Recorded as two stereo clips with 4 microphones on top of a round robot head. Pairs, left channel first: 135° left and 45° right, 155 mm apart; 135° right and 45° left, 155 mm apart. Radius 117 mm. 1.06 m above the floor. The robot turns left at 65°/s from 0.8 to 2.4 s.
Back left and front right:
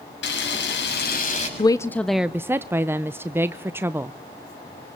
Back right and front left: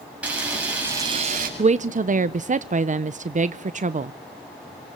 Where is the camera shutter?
125° left, 7 m; by 1.5 s 80° left, 7 m.